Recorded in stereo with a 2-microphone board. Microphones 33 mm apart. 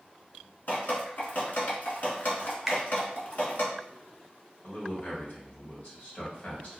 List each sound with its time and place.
0.7 s dripping: 80° left, 1.1 m
2.7 s a finger snap: 5° right (ahead or behind), 0.7 m
4.6 s a man speaking: 55° left (ahead or behind), 1.5 m